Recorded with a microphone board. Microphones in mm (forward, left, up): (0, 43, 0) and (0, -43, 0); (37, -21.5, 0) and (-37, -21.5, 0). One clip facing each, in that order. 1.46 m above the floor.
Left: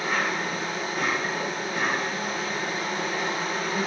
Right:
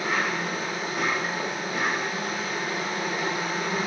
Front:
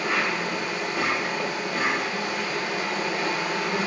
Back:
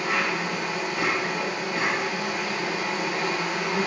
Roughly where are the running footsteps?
I don't hear running footsteps.